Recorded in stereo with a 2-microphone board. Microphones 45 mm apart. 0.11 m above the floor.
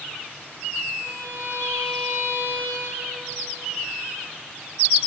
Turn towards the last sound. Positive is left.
turn(degrees=-65)  # may be behind; listen again after turning